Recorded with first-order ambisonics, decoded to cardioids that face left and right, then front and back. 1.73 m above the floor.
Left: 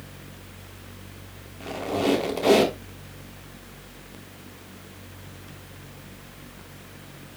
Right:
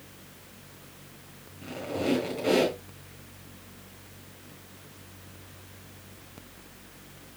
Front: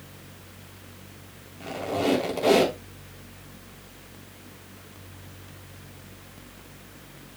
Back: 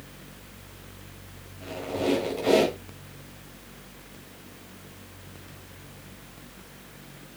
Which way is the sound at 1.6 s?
60° left.